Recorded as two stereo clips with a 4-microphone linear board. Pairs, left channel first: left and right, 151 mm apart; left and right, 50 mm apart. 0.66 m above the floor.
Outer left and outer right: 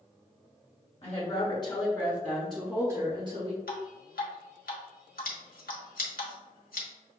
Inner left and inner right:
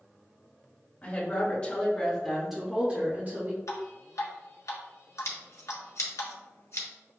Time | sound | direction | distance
1.0 | a woman speaking | 40° left (ahead or behind) | 1.7 m
3.7 | dripping | 80° left | 1.1 m
5.2 | scissors | 70° left (ahead or behind) | 1.5 m